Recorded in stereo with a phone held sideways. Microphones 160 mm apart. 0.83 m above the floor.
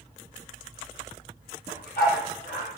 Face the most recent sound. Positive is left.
turn(degrees=75)  # may be behind; listen again after turning